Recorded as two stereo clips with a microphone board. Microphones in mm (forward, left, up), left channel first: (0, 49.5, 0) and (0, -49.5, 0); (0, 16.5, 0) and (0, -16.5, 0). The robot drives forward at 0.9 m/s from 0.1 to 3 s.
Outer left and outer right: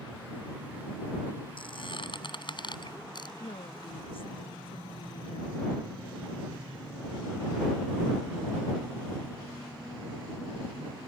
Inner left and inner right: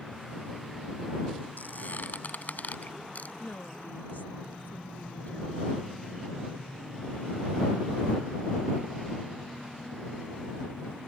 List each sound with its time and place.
1.6 s a squeak: 60° left (ahead or behind); by 3.3 s 50° left (ahead or behind)
3.4 s a woman speaking: 65° left (ahead or behind)